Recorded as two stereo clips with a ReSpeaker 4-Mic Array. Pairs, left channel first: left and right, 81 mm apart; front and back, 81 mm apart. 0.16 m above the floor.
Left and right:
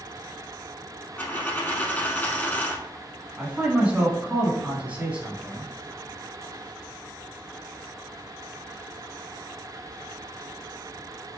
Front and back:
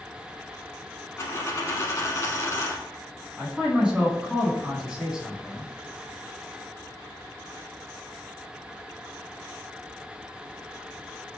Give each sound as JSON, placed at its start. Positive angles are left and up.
{"t": 1.2, "sound": "a dropped coin", "azimuth_deg": 35, "distance_m": 0.7}
{"t": 3.4, "sound": "a man speaking", "azimuth_deg": -120, "distance_m": 1.1}